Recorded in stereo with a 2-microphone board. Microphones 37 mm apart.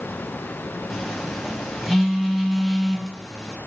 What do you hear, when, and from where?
0.9 s a phone buzzing: 5° right (ahead or behind), 1.4 m